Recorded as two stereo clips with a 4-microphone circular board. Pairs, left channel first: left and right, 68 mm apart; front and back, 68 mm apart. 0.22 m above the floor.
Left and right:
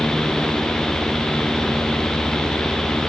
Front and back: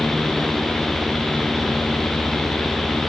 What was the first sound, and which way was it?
Only background noise.